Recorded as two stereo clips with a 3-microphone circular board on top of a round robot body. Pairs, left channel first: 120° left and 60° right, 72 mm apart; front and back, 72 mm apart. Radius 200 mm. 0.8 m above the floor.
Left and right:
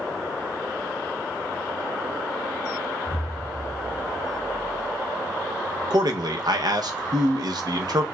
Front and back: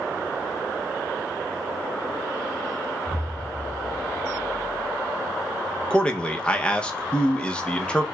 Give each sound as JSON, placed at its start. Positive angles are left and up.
{"t": 3.0, "sound": "an explosion", "azimuth_deg": 45, "distance_m": 2.0}
{"t": 5.9, "sound": "a man speaking", "azimuth_deg": -75, "distance_m": 0.8}